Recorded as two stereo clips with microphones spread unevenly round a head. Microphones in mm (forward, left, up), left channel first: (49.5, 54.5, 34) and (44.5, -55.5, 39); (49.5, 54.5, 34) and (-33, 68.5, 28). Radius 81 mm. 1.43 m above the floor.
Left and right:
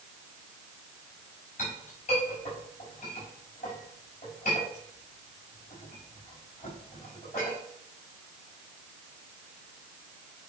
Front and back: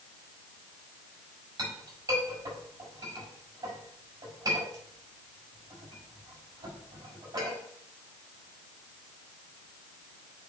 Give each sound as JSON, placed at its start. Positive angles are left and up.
{"t": 1.6, "sound": "a clink", "azimuth_deg": 125, "distance_m": 5.5}